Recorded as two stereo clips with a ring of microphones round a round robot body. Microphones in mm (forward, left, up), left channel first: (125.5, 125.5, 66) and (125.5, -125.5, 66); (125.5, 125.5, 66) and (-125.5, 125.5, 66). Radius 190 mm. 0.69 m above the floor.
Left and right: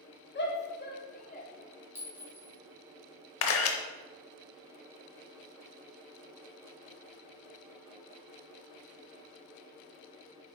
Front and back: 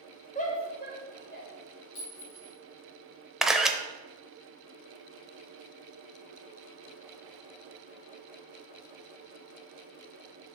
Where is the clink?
10° right, 3 m.